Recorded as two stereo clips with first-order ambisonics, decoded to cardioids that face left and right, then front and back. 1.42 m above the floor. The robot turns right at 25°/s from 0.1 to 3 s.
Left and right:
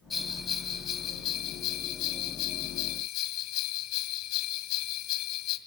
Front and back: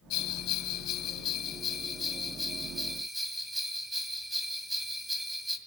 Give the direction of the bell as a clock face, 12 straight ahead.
11 o'clock.